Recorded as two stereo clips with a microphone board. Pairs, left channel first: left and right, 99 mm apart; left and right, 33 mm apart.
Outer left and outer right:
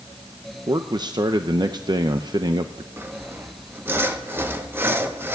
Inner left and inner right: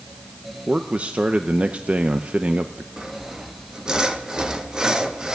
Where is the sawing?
20° right (ahead or behind), 1.1 m.